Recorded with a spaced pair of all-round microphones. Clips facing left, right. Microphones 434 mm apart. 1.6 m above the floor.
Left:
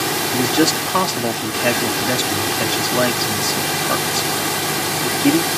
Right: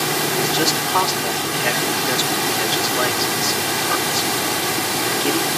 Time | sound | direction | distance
0.3 | a man speaking | 65° left (ahead or behind) | ?